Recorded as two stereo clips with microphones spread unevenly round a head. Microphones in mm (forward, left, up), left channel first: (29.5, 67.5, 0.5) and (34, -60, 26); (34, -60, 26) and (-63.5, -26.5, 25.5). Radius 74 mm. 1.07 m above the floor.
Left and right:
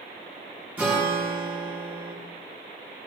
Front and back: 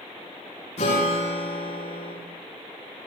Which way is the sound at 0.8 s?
15° right.